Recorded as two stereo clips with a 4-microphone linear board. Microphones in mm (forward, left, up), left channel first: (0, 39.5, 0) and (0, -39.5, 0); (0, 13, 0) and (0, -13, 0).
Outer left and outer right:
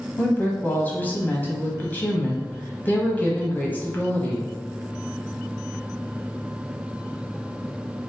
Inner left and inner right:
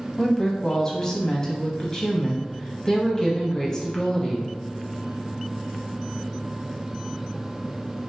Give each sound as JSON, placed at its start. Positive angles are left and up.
{"t": 0.2, "sound": "a woman speaking", "side_deg": 20, "distance_m": 1.0}